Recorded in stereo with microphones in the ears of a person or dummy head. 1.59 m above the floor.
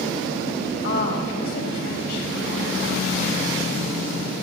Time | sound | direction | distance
0.8 | a woman speaking | 60° left (ahead or behind) | 8.5 m